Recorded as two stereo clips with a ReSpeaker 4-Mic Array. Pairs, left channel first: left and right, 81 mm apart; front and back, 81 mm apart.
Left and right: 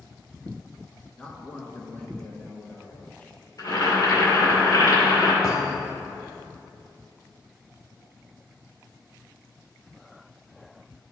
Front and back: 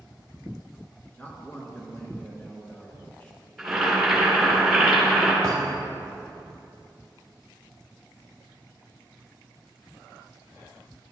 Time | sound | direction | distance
1.2 | a man speaking | 45° left | 1.4 m
3.6 | boiling | 90° left | 2.5 m
5.4 | a thud | 130° left | 1.2 m